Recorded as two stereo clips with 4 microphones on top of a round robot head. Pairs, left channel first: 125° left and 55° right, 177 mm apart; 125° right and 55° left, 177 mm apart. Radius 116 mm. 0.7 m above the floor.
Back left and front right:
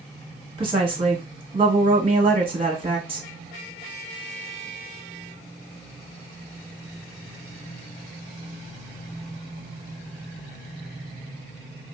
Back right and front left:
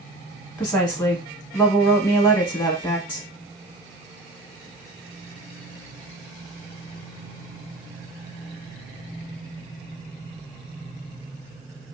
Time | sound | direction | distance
0.6 | a woman speaking | 55° right | 1.2 m